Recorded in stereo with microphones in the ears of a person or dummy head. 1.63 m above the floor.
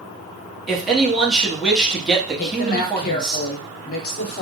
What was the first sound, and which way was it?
A man speaking, centre (ahead or behind).